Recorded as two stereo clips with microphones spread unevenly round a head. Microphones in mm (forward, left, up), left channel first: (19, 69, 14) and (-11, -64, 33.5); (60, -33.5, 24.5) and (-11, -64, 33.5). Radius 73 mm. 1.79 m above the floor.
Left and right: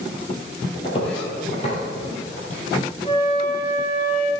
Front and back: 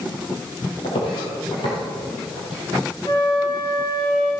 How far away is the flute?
About 3 m.